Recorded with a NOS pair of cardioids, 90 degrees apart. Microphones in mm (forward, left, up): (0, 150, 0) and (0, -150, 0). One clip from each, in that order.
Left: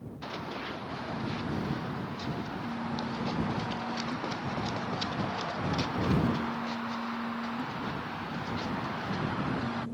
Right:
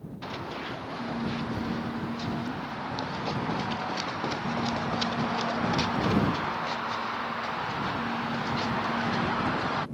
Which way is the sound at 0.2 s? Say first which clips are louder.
Right 2 dB; 5° right.